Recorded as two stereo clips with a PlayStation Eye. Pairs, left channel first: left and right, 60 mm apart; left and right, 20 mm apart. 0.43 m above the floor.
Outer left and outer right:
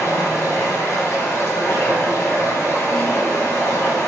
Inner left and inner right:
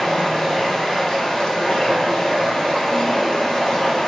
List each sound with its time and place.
0.0 s running water: 60° left (ahead or behind), 1.0 m